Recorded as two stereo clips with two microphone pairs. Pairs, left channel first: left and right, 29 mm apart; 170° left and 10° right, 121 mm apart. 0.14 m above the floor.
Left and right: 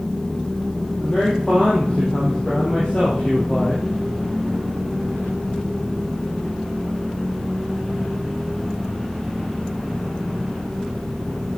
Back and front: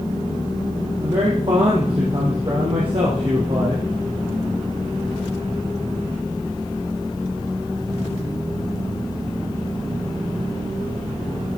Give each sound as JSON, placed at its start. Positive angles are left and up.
{"t": 1.0, "sound": "a man speaking", "azimuth_deg": 35, "distance_m": 4.0}